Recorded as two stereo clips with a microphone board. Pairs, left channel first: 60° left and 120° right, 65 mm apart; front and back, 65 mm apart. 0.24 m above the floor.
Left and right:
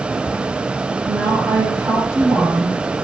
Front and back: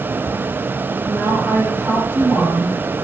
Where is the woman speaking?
135° right, 10 m.